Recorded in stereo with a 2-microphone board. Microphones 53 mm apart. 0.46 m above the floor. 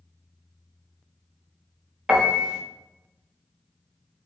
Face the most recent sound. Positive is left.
turn(degrees=-15)  # may be behind; listen again after turning